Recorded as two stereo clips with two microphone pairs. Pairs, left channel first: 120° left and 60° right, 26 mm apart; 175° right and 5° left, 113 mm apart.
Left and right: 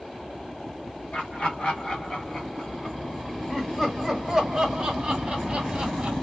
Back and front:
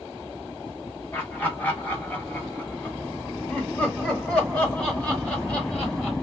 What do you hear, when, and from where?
1.1 s laughter: 115° left, 2 m; by 6.1 s 85° right, 1.9 m